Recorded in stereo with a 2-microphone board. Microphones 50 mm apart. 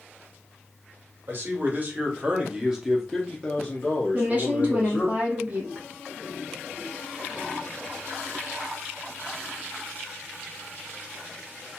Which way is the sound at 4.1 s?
30° right (ahead or behind).